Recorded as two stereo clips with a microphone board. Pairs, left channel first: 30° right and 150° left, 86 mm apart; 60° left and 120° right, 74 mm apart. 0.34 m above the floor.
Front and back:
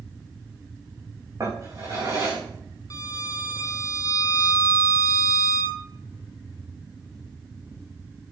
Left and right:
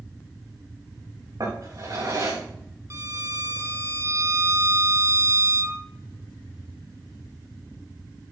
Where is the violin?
75° right, 1.0 m.